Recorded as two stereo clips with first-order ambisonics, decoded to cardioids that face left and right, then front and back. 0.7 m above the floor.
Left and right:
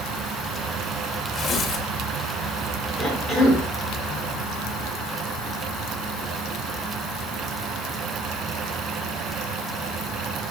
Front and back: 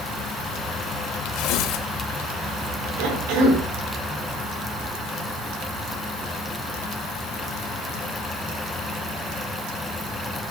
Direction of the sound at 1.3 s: 25° left.